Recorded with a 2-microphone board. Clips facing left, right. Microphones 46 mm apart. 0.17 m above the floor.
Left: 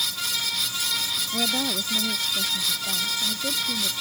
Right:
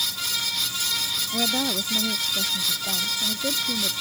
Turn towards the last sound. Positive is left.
turn(degrees=-30)  # may be behind; listen again after turning